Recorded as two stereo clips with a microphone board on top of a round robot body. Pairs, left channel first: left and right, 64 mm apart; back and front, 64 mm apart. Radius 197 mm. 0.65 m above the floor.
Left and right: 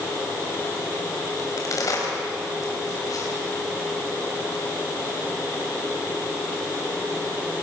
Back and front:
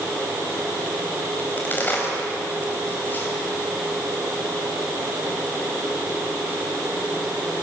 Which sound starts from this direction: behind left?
A crack, at 1.4 s.